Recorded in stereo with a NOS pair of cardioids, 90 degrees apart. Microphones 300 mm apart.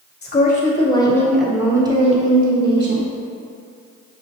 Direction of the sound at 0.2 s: 35° left.